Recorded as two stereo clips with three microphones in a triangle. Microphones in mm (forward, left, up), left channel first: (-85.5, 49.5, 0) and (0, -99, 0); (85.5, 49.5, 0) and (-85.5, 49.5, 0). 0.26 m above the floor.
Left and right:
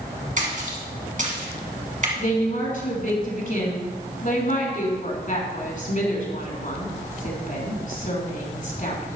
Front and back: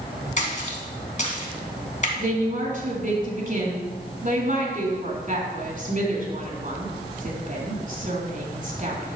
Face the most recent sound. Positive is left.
turn(degrees=150)